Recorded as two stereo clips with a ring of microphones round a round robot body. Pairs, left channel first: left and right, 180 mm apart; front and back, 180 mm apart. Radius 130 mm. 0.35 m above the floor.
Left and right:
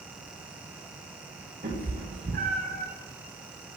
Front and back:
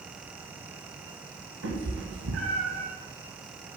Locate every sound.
1.6 s a cat meowing: 155° right, 3.5 m; by 2.9 s 145° right, 2.5 m